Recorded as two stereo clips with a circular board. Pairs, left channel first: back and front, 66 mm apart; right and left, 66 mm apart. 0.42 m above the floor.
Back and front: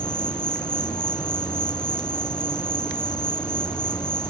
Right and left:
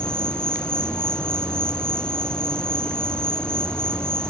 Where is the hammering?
I don't hear hammering.